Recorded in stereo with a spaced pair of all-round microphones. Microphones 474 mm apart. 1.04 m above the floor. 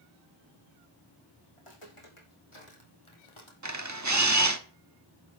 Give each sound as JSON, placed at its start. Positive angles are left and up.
{"t": 1.6, "sound": "footsteps", "side_deg": 75, "distance_m": 4.5}
{"t": 3.6, "sound": "a camera shutter", "side_deg": -35, "distance_m": 1.0}